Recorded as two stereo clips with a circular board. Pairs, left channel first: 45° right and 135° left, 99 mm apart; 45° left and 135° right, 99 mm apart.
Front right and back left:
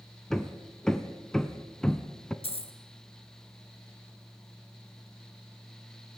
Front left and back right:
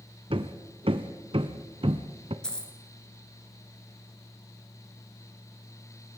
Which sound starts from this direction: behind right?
Hammering, at 0.3 s.